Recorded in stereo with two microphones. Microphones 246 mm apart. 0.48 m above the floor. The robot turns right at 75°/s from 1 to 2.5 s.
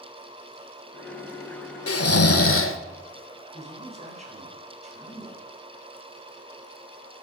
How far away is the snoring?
About 0.5 m.